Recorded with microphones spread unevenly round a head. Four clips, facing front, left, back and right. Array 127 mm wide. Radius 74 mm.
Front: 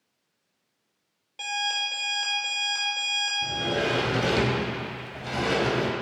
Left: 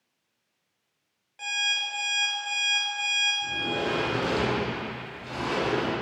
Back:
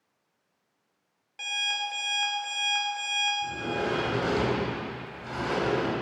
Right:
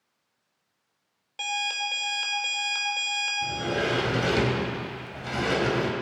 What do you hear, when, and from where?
1.4 s an alarm clock: 90° right, 2.5 m
3.4 s a sliding door: 50° right, 3 m